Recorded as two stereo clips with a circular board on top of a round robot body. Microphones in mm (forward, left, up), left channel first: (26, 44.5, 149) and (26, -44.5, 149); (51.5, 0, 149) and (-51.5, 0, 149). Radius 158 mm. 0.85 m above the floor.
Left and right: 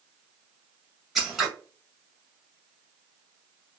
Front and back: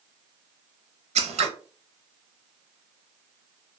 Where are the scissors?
175° right, 0.7 m.